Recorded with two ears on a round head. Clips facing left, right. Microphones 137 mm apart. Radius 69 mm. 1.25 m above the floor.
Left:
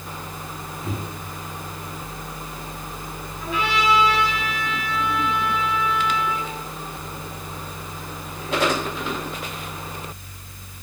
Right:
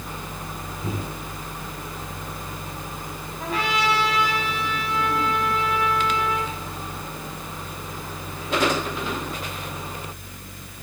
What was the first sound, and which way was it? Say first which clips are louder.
A microwave: even; 90° right.